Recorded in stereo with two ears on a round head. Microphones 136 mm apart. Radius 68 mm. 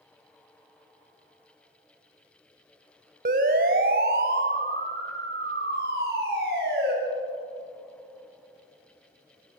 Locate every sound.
3.2 s a siren: 60° right (ahead or behind), 2 m; by 6.9 s 75° right (ahead or behind), 7 m